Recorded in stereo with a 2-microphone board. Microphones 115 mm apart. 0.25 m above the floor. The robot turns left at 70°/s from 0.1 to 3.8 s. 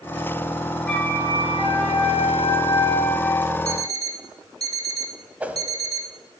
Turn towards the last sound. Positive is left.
turn(degrees=-15)  # may be behind; listen again after turning